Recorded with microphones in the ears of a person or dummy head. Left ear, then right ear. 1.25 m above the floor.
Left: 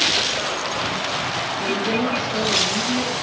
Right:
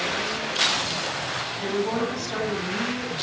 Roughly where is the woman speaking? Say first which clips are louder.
Left 3 dB; right.